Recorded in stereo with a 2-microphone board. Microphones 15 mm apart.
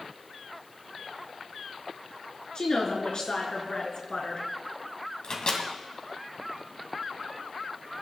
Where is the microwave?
50° left (ahead or behind), 2.5 m.